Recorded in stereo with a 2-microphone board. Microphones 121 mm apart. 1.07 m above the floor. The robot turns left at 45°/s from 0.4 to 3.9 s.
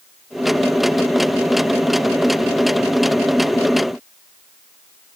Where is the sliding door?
I don't hear a sliding door.